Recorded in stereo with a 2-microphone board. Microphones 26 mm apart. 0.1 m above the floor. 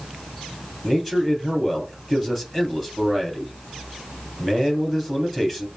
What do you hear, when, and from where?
0.8 s a man speaking: centre (ahead or behind), 2.5 m